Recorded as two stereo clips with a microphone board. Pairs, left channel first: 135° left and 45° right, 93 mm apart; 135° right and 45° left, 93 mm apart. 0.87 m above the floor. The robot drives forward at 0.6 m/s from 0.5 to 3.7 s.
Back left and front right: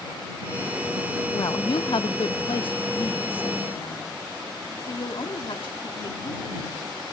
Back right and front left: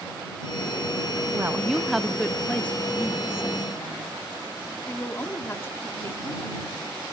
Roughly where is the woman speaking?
Left.